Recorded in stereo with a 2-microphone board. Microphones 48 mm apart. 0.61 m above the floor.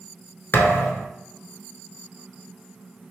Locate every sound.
0.5 s a thud: 50° left (ahead or behind), 1.1 m